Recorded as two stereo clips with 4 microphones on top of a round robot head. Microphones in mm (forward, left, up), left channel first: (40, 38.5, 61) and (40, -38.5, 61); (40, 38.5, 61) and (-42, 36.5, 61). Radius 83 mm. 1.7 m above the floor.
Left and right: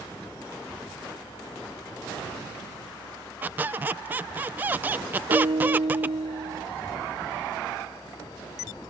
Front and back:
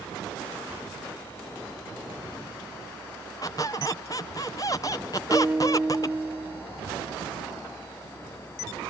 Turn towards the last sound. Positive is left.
turn(degrees=-105)